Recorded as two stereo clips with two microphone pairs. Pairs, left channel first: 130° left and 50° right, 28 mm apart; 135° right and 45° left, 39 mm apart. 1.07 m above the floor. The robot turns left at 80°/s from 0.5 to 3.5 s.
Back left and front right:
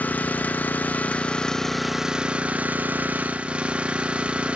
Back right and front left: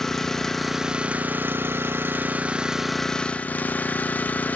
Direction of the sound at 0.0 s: 145° left.